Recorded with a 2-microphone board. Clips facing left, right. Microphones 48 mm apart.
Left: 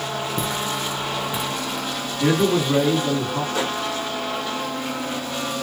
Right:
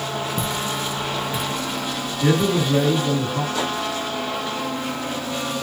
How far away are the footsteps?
About 1.9 m.